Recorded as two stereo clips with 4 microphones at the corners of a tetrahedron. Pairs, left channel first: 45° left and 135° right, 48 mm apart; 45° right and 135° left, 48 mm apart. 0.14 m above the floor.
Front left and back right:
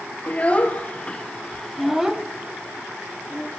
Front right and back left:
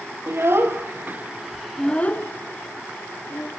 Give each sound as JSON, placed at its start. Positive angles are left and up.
{"t": 0.3, "sound": "a child speaking", "azimuth_deg": 105, "distance_m": 2.0}